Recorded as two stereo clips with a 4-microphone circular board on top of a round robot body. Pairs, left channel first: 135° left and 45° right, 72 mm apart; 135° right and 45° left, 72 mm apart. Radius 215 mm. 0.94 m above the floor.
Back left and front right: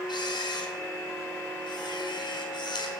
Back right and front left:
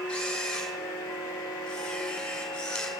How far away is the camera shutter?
About 5 m.